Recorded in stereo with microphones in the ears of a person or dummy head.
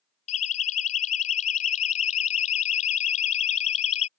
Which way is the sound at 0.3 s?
40° left (ahead or behind).